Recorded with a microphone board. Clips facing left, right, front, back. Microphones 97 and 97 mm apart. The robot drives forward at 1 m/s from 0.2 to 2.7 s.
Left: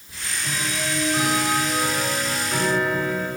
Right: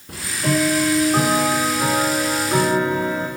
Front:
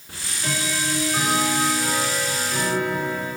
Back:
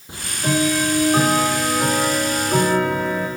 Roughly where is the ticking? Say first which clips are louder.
Right 10 dB, back 8 dB; behind right.